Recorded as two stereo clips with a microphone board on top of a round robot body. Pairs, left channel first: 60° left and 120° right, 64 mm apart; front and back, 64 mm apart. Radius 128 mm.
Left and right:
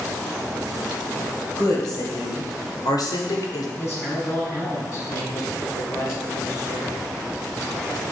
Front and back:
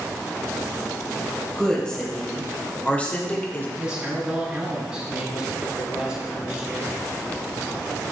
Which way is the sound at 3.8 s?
105° left.